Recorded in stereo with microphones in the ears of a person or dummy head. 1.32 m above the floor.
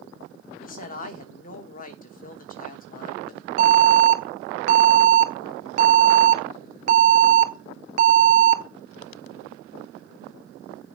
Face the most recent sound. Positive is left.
turn(degrees=-45)  # may be behind; listen again after turning